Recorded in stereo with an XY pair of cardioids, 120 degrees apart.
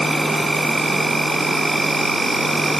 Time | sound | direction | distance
0.0 | an insect | 10° right | 5 m